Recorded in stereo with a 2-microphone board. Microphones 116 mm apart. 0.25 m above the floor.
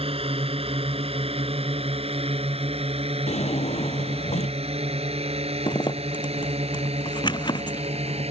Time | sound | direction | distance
0.0 | a drone | 55° right (ahead or behind) | ?
3.3 | a drawer | 75° left (ahead or behind) | ?
5.7 | a zipper | 40° left (ahead or behind) | ?